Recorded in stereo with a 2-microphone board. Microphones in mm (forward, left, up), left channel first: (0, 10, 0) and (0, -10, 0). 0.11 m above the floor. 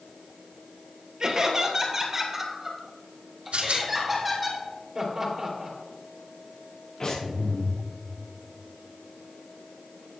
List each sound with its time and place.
1.2 s laughter: 35° right (ahead or behind), 2 m; by 4.5 s centre (ahead or behind), 4 m
3.5 s a rattle: 75° right (ahead or behind), 1.9 m
5.0 s laughter: 20° right (ahead or behind), 3 m
7.0 s breathing: 40° left (ahead or behind), 4.5 m